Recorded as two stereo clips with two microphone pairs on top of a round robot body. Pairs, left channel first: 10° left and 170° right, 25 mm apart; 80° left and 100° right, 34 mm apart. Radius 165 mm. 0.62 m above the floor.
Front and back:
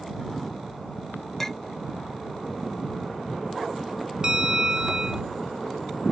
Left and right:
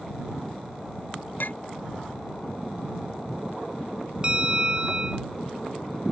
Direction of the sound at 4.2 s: 155° right.